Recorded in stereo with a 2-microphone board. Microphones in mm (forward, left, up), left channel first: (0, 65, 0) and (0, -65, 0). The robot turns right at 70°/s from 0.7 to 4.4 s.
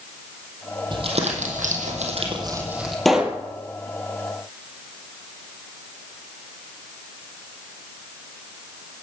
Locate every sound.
0.9 s crumpling: 35° right (ahead or behind), 3 m; by 3.0 s centre (ahead or behind), 3 m
3.0 s a pop: centre (ahead or behind), 1.4 m; by 3.4 s 20° right (ahead or behind), 1.4 m